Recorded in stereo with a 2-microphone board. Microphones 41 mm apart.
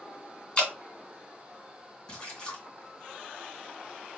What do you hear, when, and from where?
0.6 s dripping: 30° left (ahead or behind), 1.7 m
2.1 s a splash: 25° left (ahead or behind), 2.5 m